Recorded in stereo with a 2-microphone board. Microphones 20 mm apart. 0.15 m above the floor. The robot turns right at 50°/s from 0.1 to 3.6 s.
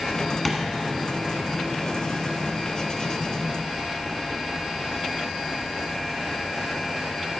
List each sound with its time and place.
0.5 s tapping: 15° left (ahead or behind), 1.6 m; by 0.7 s 10° left (ahead or behind), 1.6 m